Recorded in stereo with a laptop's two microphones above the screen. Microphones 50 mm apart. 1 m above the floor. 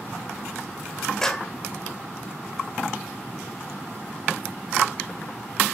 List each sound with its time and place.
1.2 s a clap: 10° left (ahead or behind), 2.5 m